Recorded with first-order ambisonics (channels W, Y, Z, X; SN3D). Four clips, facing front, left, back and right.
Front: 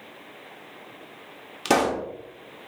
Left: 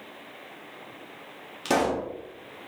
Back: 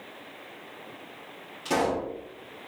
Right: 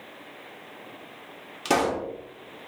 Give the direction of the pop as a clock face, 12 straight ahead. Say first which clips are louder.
Right 1 dB, front 4 dB; 12 o'clock.